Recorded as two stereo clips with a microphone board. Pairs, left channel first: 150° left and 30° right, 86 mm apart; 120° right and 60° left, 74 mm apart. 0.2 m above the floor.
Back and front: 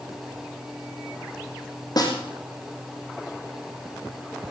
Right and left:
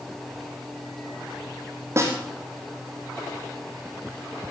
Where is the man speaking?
No man speaking in this recording.